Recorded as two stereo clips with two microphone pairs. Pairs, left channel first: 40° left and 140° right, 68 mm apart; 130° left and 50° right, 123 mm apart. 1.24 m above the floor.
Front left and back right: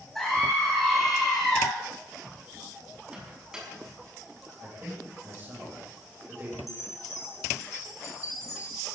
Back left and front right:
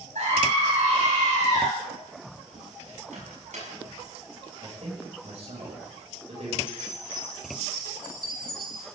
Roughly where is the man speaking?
Right.